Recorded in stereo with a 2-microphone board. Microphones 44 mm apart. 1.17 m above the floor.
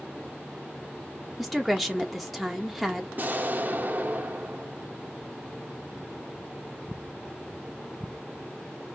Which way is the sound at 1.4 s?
5° left (ahead or behind).